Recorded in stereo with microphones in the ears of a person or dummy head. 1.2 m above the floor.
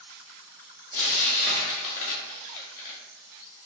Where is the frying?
30° left (ahead or behind), 0.6 m.